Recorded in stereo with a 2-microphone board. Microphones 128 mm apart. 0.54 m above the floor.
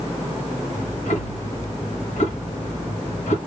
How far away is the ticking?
About 3 m.